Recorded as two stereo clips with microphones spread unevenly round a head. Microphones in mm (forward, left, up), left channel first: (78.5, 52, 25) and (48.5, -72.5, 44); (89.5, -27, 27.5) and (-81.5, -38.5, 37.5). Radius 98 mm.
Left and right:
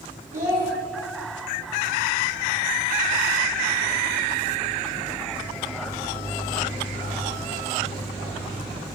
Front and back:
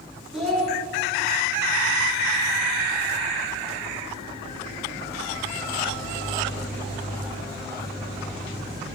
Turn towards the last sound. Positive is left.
turn(degrees=-85)